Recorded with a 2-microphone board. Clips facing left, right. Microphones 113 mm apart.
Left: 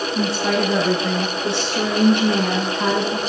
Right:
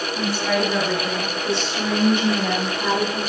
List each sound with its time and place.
0.1 s a woman speaking: 65° left (ahead or behind), 7.5 m; by 3.2 s 75° left (ahead or behind), 6.5 m